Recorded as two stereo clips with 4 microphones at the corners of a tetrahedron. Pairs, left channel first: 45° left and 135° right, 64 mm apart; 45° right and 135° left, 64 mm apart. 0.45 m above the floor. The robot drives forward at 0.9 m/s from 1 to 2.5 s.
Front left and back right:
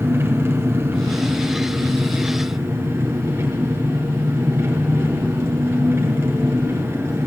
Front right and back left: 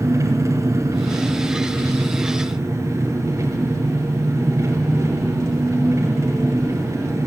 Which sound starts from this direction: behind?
An engine running, at 0.0 s.